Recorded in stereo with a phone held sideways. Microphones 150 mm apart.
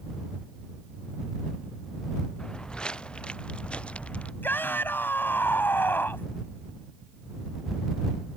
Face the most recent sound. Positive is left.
turn(degrees=15)  # may be behind; listen again after turning